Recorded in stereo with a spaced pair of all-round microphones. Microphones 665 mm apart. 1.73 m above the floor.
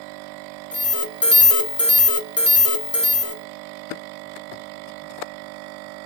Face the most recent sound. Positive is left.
turn(degrees=20)  # may be behind; listen again after turning